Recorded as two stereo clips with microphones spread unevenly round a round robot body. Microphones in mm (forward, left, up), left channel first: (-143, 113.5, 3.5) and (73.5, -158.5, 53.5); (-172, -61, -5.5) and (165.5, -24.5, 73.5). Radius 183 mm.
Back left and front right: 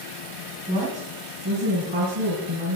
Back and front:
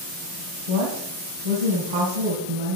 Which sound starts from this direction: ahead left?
A woman speaking, at 0.7 s.